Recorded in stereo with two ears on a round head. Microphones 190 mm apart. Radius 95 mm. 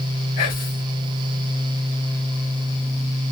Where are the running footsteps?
I don't hear running footsteps.